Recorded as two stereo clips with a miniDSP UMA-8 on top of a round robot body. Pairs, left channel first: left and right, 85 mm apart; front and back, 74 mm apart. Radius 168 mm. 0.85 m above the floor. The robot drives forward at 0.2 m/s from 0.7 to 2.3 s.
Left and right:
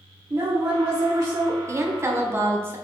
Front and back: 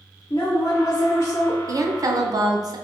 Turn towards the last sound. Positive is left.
turn(degrees=-150)